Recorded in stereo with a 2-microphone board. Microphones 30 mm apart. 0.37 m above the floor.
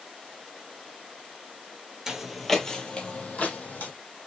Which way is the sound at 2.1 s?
15° right (ahead or behind).